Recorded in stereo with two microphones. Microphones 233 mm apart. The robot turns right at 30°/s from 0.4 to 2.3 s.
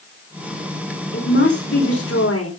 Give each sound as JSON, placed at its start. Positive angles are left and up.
{"t": 1.1, "sound": "a woman speaking", "azimuth_deg": 65, "distance_m": 4.5}